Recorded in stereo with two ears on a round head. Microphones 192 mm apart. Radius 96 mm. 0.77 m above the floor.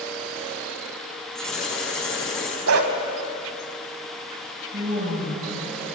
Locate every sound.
1.4 s writing: 5° left (ahead or behind), 6 m
2.7 s a dog barking: 70° right (ahead or behind), 2.5 m
4.7 s a woman speaking: 40° right (ahead or behind), 4 m